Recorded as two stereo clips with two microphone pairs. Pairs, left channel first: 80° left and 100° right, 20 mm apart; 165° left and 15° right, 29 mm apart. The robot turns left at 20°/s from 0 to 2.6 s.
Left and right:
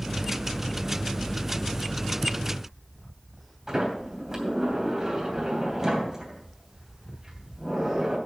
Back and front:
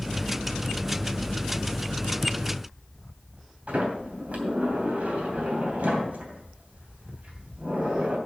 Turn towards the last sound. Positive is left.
turn(degrees=-35)